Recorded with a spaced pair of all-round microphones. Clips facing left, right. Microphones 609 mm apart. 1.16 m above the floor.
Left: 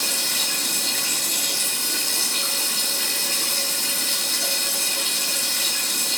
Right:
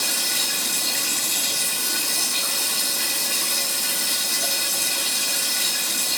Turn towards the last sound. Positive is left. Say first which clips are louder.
# even
turn(degrees=-25)  # may be behind; listen again after turning